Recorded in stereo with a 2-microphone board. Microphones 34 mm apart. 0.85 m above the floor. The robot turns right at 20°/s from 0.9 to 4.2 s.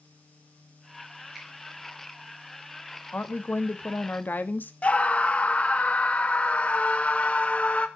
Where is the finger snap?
Centre (ahead or behind), 6 m; by 1.5 s 5° right (ahead or behind), 6 m.